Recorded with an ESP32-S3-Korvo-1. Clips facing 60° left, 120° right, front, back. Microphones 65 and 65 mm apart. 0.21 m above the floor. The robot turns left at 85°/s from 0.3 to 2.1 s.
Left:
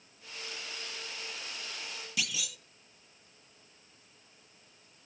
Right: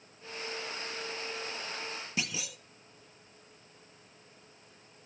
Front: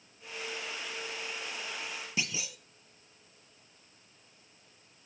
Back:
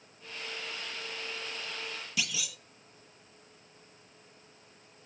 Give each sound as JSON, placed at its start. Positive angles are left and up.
{"t": 2.2, "sound": "a clunk", "azimuth_deg": -65, "distance_m": 0.8}